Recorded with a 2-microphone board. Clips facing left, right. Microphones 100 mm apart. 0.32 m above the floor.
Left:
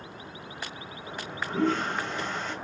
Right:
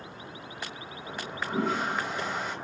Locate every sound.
1.1 s a toilet flushing: 10° right (ahead or behind), 1.0 m